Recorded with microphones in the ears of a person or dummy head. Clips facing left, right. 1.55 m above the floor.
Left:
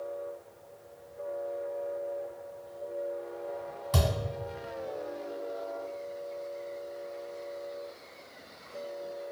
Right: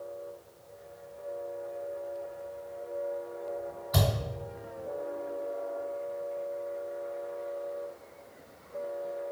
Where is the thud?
40° left (ahead or behind), 1.8 m.